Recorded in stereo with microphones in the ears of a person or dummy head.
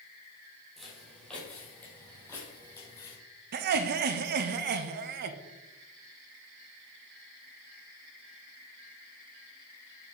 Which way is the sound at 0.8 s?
Centre (ahead or behind).